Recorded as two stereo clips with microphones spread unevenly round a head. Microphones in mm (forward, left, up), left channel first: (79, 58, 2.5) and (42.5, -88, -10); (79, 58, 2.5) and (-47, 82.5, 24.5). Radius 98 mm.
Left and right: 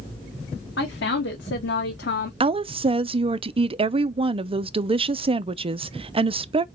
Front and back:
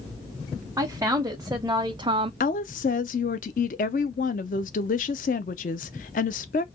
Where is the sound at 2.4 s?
50° right, 0.6 m.